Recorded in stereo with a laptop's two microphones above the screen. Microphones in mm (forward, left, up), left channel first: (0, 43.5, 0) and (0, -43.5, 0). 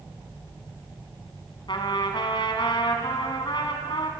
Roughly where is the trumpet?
Left.